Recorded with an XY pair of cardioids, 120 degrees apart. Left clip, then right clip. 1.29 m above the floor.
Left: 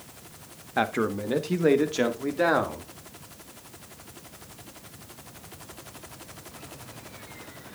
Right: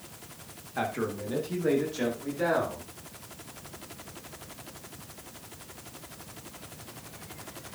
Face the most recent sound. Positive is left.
turn(degrees=60)